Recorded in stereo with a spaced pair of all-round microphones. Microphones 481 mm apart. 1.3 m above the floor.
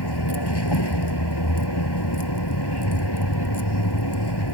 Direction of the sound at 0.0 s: 55° left (ahead or behind).